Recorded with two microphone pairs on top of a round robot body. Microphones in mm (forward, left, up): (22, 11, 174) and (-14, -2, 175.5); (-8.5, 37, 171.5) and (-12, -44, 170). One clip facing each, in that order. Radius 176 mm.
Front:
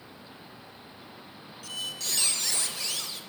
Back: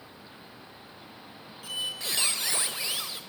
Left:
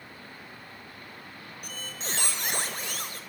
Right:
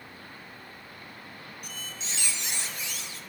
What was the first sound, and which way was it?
A squeak, 130° left.